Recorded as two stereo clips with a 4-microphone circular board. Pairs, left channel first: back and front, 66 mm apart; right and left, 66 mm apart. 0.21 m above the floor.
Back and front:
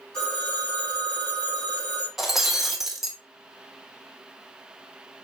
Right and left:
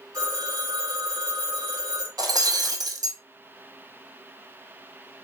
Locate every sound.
0.1 s a phone ringing: 100° left, 4.5 m
2.2 s breaking glass: 85° left, 1.3 m